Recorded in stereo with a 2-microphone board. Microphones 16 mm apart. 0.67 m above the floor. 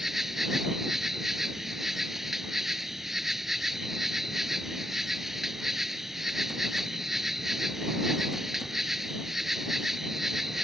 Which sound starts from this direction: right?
An insect, at 0.0 s.